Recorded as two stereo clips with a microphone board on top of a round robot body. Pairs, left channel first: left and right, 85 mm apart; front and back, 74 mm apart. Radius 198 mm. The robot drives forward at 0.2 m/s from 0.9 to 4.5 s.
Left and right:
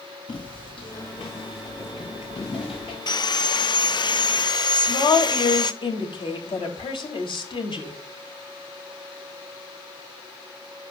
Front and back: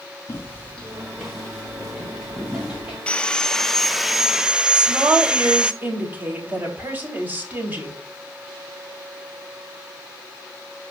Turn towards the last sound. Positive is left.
turn(degrees=115)